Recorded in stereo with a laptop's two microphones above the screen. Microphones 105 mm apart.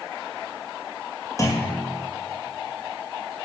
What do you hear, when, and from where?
1.4 s a clunk: 30° left (ahead or behind), 2 m